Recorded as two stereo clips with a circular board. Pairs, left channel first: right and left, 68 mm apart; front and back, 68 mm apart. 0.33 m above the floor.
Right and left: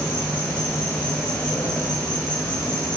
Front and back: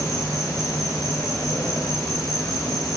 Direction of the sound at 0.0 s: 20° right.